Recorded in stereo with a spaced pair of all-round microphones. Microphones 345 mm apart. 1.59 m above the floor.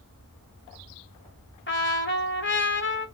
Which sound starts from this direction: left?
A trumpet, at 1.7 s.